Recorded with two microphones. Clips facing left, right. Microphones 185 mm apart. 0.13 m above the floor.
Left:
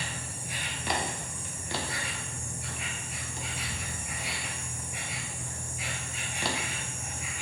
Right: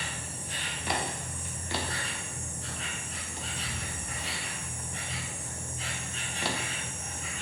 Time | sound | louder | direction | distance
0.0 | an insect | even | 10° left (ahead or behind) | 0.9 m